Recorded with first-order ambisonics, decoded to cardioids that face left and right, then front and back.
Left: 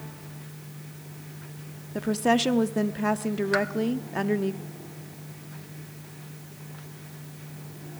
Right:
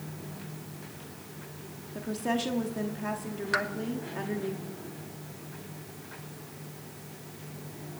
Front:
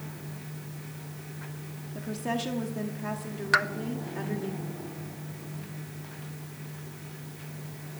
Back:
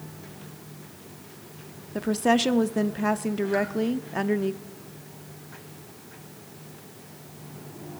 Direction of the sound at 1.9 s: 140° left.